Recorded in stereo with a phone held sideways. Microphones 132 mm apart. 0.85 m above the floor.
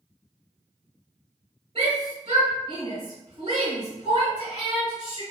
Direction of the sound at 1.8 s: 35° right (ahead or behind).